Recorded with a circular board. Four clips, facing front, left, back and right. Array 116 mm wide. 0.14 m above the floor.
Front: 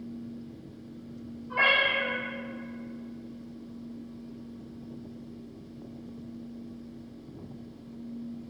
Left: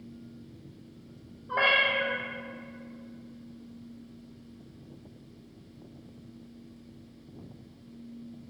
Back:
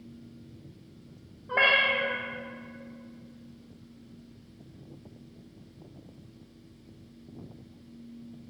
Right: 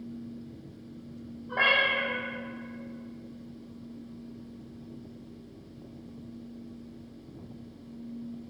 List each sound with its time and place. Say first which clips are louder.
1.5 s a cat meowing: left 1 dB, back 1 dB; 175° left, 1.7 m